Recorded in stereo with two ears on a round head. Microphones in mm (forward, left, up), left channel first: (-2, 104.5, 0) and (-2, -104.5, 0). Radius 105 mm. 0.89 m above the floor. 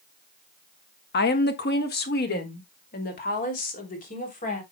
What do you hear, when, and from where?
1.1 s a woman speaking: 45° left (ahead or behind), 1.2 m; by 4.6 s 35° left (ahead or behind), 3.5 m